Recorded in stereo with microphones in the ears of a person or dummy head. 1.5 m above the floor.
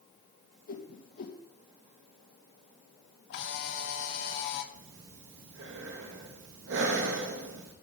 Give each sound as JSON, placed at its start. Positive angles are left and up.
{"t": 0.7, "sound": "a whoosh", "side_deg": 55, "distance_m": 1.5}
{"t": 3.3, "sound": "a camera shutter", "side_deg": 65, "distance_m": 1.2}
{"t": 4.7, "sound": "breathing", "side_deg": -75, "distance_m": 1.3}